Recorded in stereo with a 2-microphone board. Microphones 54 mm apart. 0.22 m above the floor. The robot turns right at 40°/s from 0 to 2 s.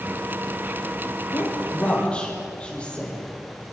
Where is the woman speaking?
45° left (ahead or behind), 7.5 m; by 3.2 s 15° left (ahead or behind), 7.5 m.